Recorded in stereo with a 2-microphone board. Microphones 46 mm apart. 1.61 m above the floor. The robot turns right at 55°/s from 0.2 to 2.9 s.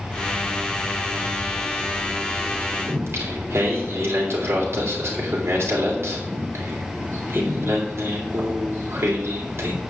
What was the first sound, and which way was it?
Singing, 70° right (ahead or behind).